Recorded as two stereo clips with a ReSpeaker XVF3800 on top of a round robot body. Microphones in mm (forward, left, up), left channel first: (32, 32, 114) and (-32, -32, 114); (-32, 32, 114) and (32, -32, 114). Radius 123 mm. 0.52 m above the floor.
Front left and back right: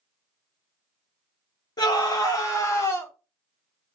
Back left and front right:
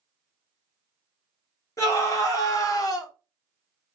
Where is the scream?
85° left, 2 m; by 3.1 s 105° left, 1.5 m.